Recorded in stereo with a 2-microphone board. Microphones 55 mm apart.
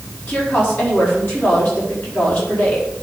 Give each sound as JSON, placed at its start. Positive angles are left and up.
{"t": 0.3, "sound": "a woman speaking", "side_deg": 40, "distance_m": 4.0}